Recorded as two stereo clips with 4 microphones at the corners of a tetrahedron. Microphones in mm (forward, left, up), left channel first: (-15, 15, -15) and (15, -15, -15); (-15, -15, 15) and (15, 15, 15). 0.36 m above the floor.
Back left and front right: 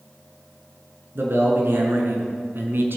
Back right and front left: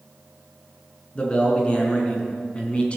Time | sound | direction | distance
1.1 | a man speaking | 70° right | 4.5 m